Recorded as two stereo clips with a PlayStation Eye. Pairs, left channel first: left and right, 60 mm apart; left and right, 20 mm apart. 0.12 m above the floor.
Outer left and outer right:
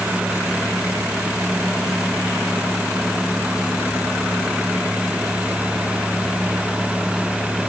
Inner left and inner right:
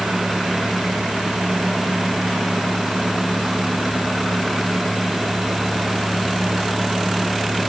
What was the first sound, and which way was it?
Only background noise.